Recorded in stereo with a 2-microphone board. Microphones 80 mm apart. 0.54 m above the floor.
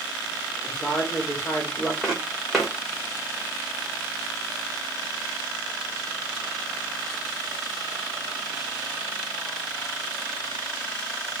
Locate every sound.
0.7 s a woman speaking: 25° left (ahead or behind), 1.3 m
2.0 s footsteps: centre (ahead or behind), 1.2 m